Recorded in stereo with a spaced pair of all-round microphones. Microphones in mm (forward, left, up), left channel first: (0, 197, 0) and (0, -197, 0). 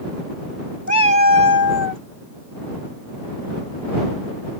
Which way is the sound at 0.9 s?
45° left (ahead or behind).